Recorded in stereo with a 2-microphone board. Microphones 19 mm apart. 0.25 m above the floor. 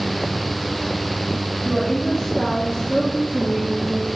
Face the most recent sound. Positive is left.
turn(degrees=50)  # may be behind; listen again after turning